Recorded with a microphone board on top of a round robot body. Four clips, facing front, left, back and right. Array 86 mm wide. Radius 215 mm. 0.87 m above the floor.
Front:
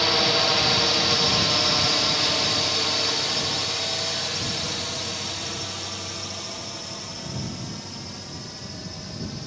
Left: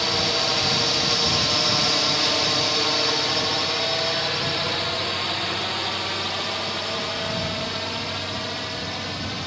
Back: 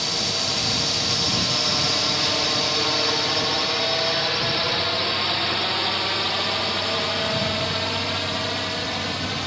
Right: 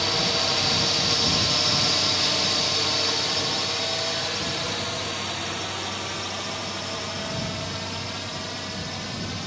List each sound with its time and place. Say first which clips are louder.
0.0 s a drone: left 2 dB, front 6 dB; 15° left; by 9.5 s 165° left